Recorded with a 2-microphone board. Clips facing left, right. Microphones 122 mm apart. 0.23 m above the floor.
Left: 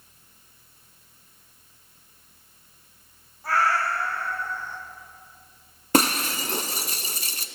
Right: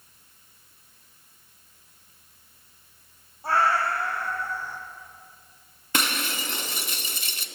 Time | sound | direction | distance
3.4 | a cat meowing | 25° right (ahead or behind) | 3.5 m
5.9 | breaking glass | 40° left (ahead or behind) | 1.4 m